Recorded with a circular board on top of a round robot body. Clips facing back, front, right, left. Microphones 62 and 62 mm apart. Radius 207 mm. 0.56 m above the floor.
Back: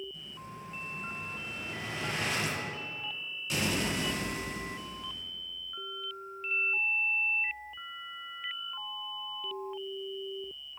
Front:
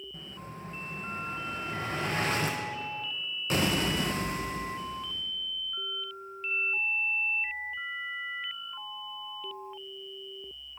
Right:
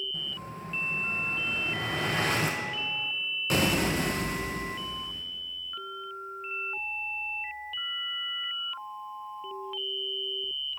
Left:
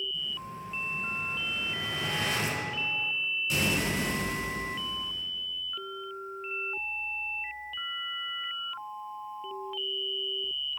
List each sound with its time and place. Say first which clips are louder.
0.1 s an explosion: front 2 dB, even; 50° right, 0.5 m